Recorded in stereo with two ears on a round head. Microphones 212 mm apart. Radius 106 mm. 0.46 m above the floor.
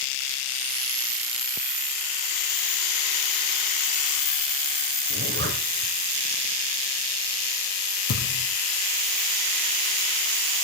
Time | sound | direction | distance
5.1 | a zipper | 45° right (ahead or behind) | 2.5 m
8.1 | a thud | 75° left (ahead or behind) | 5 m